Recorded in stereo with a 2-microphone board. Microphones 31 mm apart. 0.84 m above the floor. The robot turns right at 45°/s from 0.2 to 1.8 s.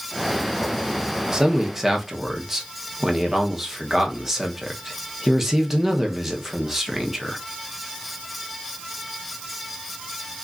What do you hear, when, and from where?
1.3 s a man speaking: 25° right (ahead or behind), 0.9 m; by 7.4 s 10° right (ahead or behind), 0.9 m